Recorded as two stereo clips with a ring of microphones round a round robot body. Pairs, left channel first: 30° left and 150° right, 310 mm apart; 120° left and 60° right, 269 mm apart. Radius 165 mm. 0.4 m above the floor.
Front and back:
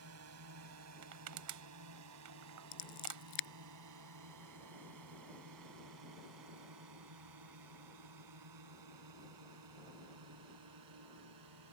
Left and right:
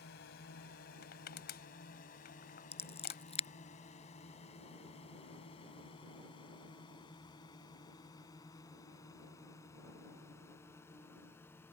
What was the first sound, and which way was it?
A drone, 175° left.